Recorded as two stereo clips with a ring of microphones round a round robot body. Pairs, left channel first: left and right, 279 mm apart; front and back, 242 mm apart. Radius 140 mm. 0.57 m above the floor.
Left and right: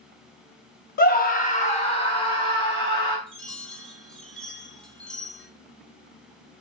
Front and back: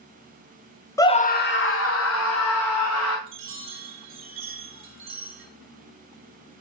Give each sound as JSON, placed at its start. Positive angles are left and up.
{"t": 1.0, "sound": "a scream", "azimuth_deg": 70, "distance_m": 0.8}
{"t": 3.3, "sound": "a chime", "azimuth_deg": 175, "distance_m": 1.7}